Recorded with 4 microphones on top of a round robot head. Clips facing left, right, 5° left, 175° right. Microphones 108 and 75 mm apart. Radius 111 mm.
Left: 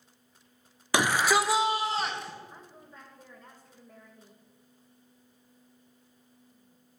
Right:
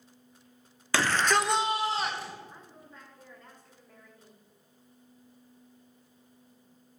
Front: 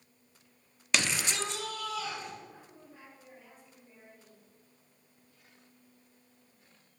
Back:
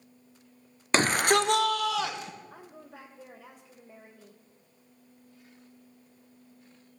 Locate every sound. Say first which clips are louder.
0.9 s a shout: left 1 dB, back 9 dB; 155° left, 0.9 m; by 2.3 s 175° right, 2 m
2.5 s a woman speaking: left 1 dB, back 5 dB; 170° left, 2.0 m